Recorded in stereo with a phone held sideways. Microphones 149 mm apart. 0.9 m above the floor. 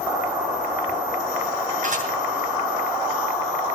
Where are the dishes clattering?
60° right (ahead or behind), 8 m.